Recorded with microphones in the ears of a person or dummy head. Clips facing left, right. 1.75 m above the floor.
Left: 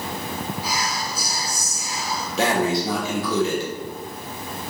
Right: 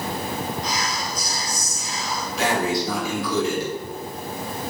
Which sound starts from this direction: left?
Breathing, at 2.4 s.